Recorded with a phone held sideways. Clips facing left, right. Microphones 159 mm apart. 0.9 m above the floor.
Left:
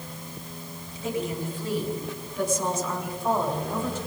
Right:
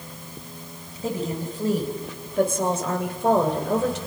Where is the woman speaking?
35° right (ahead or behind), 6 m; by 4.0 s 80° right, 4 m.